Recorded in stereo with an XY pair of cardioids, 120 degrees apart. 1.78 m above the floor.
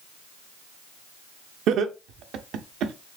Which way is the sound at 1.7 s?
70° right.